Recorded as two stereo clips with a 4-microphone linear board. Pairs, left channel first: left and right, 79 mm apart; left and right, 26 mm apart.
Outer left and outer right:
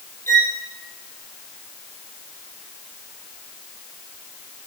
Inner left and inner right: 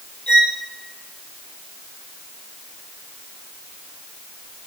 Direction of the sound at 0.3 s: 30° left (ahead or behind).